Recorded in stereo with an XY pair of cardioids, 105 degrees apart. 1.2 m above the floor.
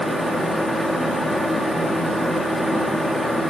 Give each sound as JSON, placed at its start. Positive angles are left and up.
{"t": 0.0, "sound": "a fan", "azimuth_deg": 5, "distance_m": 2.5}